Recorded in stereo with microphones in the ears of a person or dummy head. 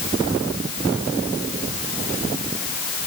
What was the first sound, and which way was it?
Only background noise.